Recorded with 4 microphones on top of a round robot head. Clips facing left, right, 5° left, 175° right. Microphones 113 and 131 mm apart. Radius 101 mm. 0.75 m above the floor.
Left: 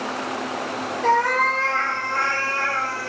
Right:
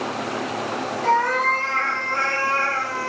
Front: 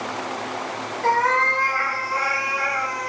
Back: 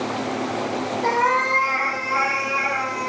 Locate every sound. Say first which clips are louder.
1.0 s a cat meowing: left 1 dB, front 2 dB; 110° left, 0.7 m; by 3.1 s 130° right, 0.8 m